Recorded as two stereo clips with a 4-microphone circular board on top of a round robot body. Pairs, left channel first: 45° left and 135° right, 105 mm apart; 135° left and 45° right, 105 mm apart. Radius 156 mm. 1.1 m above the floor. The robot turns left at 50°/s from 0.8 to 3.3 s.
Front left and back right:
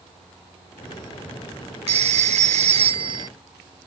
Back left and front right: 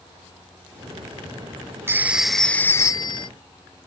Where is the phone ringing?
115° right; by 3.3 s 175° left.